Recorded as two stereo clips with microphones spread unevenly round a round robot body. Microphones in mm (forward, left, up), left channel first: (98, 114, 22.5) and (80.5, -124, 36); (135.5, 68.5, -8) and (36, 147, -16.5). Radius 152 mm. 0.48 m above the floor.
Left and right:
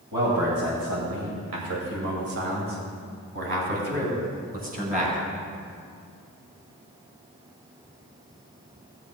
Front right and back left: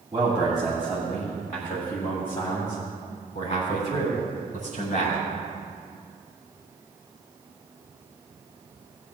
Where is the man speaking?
140° right, 2 m; by 5.2 s 35° right, 4.5 m.